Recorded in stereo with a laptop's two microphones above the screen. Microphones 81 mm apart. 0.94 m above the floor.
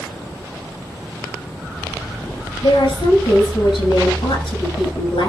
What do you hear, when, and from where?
2.6 s a woman speaking: 80° left, 6.5 m